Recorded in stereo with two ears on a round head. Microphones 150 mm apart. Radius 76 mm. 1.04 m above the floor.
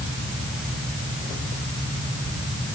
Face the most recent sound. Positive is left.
No sound to turn to.